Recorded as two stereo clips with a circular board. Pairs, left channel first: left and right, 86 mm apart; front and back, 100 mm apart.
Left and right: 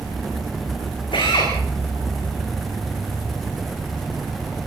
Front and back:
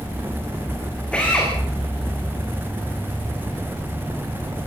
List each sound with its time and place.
1.1 s a drill: 80° left, 10 m